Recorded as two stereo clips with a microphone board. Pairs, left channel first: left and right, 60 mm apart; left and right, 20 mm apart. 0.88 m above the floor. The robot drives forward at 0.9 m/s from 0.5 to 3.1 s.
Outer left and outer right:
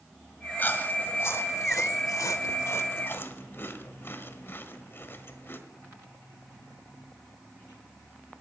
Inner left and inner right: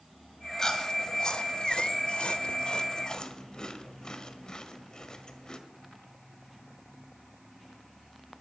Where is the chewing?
30° left (ahead or behind), 1.6 m; by 5.6 s 40° left (ahead or behind), 1.3 m.